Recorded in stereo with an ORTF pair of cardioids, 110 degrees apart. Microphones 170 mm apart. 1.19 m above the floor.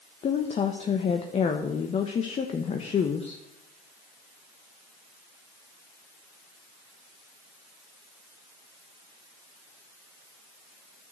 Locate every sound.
0.2 s a woman speaking: 40° left, 1.0 m